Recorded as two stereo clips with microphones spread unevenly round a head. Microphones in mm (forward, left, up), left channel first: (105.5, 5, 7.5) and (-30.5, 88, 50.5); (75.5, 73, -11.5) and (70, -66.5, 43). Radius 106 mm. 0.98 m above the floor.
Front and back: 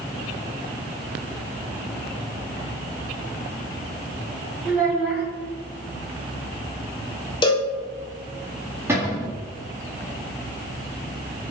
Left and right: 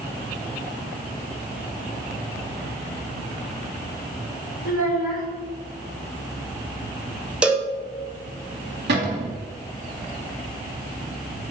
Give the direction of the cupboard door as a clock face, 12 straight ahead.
4 o'clock.